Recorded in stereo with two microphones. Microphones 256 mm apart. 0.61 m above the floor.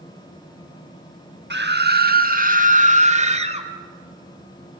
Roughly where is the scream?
Right.